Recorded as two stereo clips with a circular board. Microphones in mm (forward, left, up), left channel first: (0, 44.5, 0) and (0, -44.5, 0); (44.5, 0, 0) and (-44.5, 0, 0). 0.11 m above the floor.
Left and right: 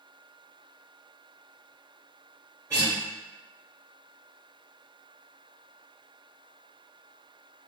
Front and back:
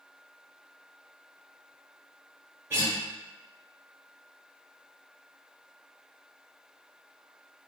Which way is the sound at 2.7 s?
130° right.